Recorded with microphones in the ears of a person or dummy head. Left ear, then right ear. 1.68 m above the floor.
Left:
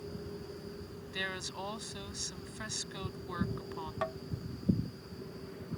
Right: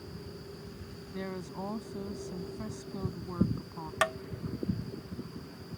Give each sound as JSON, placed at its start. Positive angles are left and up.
{"t": 1.1, "sound": "a woman speaking", "side_deg": 70}
{"t": 4.0, "sound": "tapping", "side_deg": -50}